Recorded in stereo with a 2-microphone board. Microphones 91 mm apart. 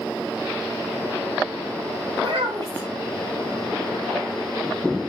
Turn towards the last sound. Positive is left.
turn(degrees=-60)  # may be behind; listen again after turning